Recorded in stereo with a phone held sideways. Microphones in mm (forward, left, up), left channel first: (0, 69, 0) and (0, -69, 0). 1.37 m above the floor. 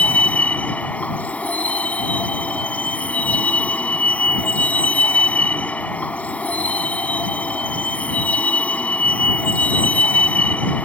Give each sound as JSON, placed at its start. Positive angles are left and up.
{"t": 0.0, "sound": "a vehicle", "side_deg": 10}